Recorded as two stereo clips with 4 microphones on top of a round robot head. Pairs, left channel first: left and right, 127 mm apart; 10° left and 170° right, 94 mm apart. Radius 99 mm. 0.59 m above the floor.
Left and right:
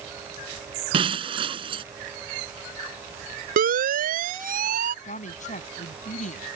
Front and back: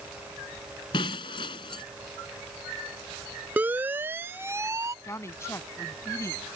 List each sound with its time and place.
0.9 s breaking glass: 40° right
3.6 s a siren: 95° right; by 5.0 s 105° right
5.0 s a woman speaking: 70° left